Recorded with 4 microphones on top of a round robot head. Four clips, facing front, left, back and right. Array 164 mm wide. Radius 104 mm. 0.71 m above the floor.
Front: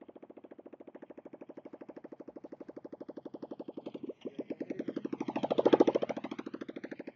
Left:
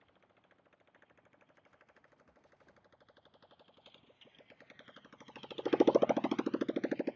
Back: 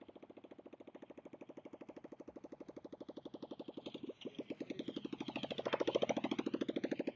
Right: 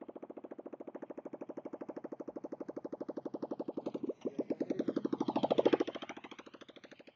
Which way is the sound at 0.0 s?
75° right.